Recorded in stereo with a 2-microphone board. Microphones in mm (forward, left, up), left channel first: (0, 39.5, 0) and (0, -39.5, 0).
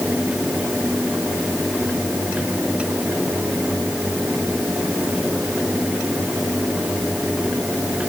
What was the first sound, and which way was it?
Only background noise.